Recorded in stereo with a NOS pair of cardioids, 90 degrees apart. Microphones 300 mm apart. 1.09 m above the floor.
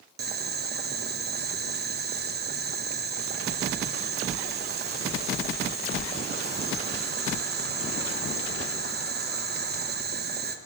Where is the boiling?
35° right, 0.8 m.